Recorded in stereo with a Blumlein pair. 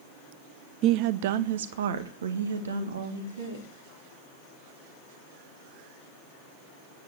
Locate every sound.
0.8 s a woman speaking: 35° right, 0.7 m; by 3.7 s 70° right, 3.5 m